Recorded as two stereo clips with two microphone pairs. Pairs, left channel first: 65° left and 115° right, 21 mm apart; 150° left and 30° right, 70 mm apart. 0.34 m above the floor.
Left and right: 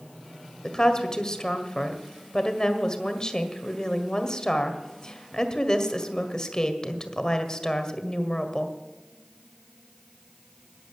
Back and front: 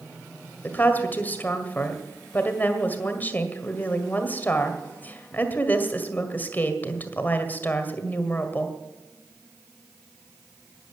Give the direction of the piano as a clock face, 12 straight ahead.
I don't hear a piano.